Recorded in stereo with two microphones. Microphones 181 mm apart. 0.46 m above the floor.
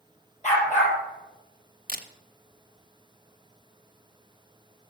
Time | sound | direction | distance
0.4 | a dog barking | 35° left (ahead or behind) | 5.5 m
1.9 | a camera shutter | 50° right (ahead or behind) | 0.7 m